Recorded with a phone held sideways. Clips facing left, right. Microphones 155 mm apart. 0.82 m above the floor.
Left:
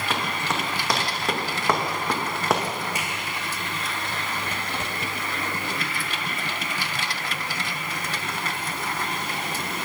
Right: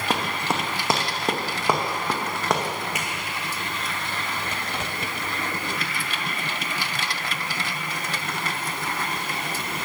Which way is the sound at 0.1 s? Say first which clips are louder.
Right 3 dB; 35° right (ahead or behind).